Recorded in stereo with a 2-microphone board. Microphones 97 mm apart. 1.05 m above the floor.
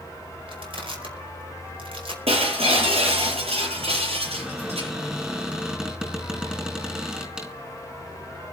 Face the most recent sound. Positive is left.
turn(degrees=-10)  # may be behind; listen again after turning